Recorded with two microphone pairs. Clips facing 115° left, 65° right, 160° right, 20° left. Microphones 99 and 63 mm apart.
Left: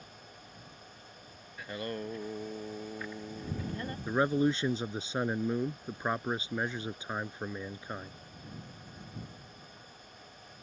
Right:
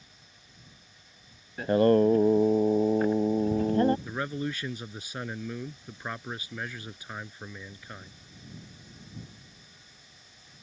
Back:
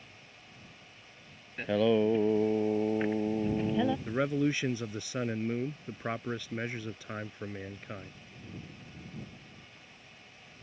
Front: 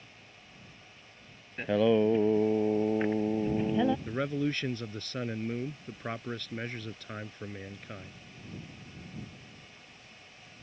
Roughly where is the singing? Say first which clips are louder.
Right 17 dB, front 1 dB; ahead right.